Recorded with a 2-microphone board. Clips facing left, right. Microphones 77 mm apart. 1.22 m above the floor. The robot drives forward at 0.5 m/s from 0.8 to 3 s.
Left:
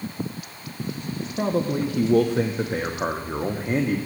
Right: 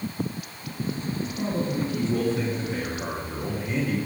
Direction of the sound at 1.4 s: 55° left (ahead or behind).